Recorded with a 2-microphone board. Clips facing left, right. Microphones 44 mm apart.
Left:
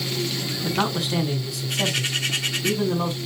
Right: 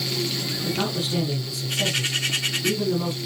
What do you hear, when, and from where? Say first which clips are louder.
0.6 s a man speaking: left 3 dB; 70° left (ahead or behind), 4 m